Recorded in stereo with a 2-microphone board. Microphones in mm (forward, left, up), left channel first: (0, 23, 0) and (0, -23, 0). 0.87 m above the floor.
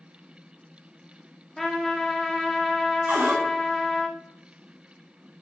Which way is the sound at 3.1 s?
55° right (ahead or behind).